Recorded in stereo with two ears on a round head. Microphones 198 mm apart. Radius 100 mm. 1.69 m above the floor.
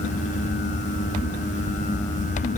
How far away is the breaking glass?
I don't hear breaking glass.